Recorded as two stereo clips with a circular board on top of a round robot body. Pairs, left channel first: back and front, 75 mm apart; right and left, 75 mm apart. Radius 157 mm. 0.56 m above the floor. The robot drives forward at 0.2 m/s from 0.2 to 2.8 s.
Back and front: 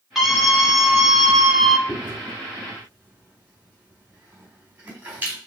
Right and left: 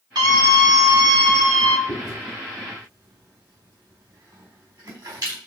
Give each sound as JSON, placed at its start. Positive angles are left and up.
{"t": 0.1, "sound": "a scream", "azimuth_deg": 85, "distance_m": 3.5}
{"t": 1.9, "sound": "chewing", "azimuth_deg": 60, "distance_m": 4.5}